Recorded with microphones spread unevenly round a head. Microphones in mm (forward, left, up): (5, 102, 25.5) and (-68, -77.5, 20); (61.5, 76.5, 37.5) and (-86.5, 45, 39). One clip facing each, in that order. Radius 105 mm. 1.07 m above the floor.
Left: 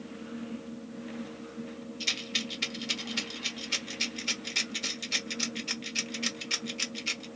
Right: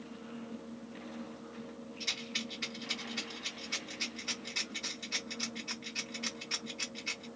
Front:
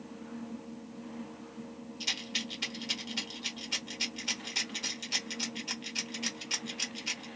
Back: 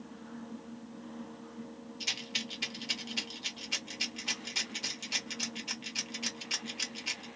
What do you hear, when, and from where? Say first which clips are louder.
2.0 s a rattle: left 4 dB, front 3 dB; 105° left, 1.1 m